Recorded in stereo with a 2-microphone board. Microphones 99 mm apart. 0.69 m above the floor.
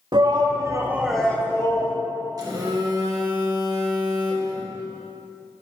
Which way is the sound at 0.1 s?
55° right (ahead or behind).